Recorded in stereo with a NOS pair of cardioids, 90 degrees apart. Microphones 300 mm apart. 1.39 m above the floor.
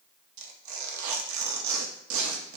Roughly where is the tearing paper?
Ahead right.